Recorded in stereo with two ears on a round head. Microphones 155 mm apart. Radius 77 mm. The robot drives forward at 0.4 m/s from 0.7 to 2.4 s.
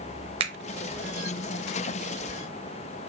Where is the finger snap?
35° right (ahead or behind), 0.8 m.